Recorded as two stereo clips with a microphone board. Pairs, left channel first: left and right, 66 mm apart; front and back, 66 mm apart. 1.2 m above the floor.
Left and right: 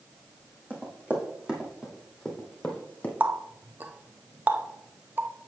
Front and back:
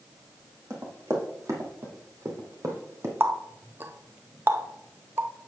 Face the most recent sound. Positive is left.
turn(degrees=-140)